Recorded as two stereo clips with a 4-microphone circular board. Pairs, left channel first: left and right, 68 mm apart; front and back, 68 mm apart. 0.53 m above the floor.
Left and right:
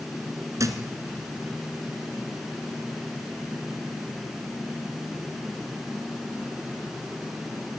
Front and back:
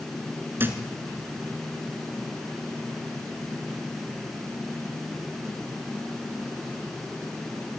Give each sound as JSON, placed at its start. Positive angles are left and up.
{"t": 0.6, "sound": "a thud", "azimuth_deg": -125, "distance_m": 1.9}